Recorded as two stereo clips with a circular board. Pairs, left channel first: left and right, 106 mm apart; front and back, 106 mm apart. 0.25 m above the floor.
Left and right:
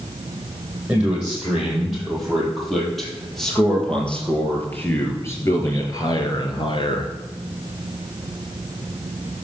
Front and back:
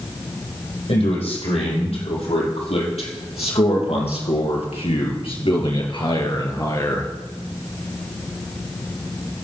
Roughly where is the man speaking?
Ahead.